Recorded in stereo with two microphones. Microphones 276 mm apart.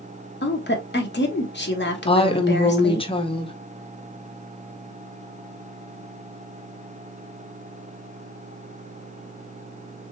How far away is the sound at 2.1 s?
About 0.8 m.